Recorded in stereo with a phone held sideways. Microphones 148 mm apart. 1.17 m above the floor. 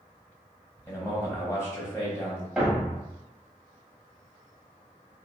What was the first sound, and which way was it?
A man speaking, 15° left (ahead or behind).